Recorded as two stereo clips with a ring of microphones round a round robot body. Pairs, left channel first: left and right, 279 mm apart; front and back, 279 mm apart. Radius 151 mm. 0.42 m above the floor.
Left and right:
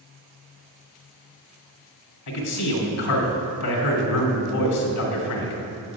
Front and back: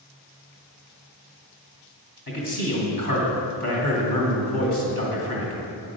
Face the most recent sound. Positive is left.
turn(degrees=60)